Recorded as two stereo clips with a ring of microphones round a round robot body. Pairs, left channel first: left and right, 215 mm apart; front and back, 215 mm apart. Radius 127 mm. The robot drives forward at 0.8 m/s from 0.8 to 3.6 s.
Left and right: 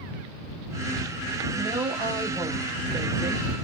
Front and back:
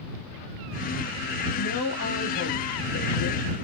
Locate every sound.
1.6 s a woman speaking: 10° right, 3.5 m; by 3.4 s 20° right, 2 m